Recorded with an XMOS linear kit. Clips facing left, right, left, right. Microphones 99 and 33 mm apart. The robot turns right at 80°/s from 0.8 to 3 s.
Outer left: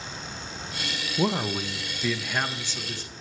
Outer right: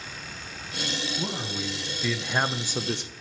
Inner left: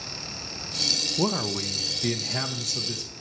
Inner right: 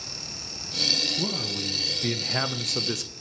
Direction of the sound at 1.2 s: 110° left.